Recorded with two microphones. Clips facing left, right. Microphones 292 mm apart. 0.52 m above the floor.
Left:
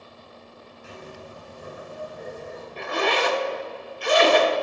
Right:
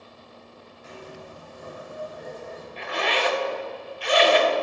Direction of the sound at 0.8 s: 35° left (ahead or behind).